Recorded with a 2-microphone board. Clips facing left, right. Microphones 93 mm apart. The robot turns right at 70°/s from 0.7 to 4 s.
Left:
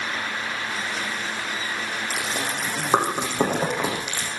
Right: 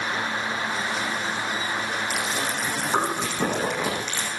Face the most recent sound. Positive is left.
turn(degrees=10)  # may be behind; listen again after turning